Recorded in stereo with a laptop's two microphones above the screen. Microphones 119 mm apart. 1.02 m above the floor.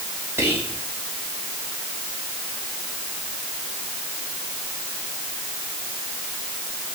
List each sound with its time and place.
0.4 s whispering: 25° right (ahead or behind), 1.9 m